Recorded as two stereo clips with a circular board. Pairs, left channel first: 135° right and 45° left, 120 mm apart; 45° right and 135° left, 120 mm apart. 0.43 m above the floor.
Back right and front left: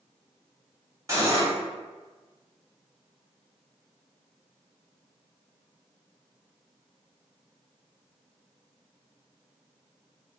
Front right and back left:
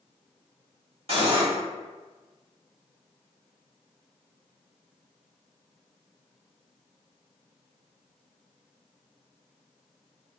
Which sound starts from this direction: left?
Cutlery clinking, at 1.1 s.